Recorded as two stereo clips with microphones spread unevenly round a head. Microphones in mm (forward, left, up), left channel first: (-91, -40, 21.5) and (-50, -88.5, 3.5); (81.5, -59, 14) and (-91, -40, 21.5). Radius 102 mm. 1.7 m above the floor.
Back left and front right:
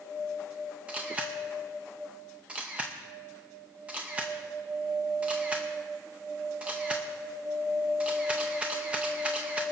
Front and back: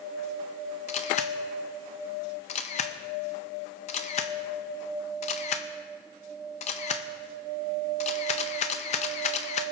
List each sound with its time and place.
0.9 s a camera shutter: 40° left, 0.5 m